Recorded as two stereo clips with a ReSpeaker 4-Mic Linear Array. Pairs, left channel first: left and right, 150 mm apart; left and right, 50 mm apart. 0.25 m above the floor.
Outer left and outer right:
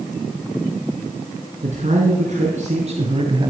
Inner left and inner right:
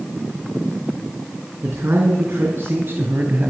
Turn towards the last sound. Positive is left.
turn(degrees=-30)  # may be behind; listen again after turning